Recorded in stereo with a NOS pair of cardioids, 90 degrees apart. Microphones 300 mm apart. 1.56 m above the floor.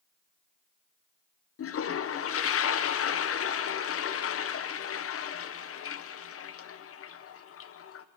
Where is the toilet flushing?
45° left, 0.8 m.